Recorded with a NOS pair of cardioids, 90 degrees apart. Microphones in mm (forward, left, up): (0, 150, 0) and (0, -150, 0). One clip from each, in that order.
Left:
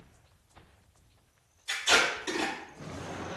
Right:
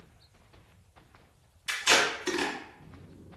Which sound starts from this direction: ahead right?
Tape being pulled, at 1.7 s.